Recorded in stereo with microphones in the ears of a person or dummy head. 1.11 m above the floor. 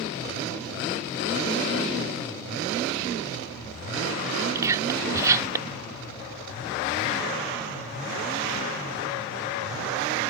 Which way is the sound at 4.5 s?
15° right (ahead or behind).